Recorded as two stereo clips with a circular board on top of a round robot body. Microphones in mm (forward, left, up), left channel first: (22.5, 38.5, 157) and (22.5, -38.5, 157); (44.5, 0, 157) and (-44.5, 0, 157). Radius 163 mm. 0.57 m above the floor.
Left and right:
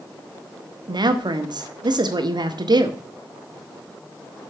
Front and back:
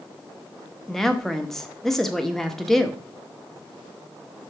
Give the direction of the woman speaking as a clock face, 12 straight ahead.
3 o'clock.